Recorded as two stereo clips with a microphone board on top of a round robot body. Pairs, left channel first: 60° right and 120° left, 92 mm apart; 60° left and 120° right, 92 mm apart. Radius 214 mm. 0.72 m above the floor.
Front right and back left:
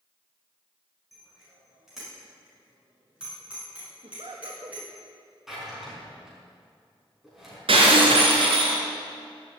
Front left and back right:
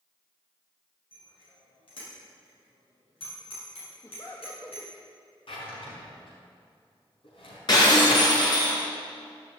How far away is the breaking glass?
About 3.5 m.